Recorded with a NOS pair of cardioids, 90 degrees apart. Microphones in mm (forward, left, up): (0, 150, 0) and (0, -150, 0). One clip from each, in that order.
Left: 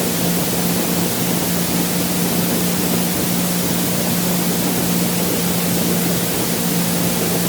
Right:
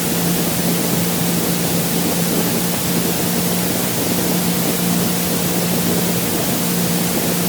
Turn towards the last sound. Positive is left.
No sound to turn to.